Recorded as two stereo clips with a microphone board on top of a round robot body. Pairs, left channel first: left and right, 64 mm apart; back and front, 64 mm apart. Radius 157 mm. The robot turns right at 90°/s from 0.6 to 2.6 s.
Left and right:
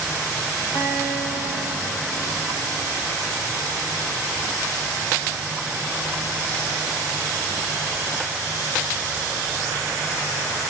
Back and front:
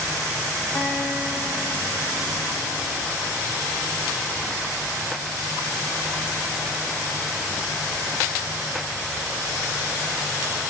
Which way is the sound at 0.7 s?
95° left.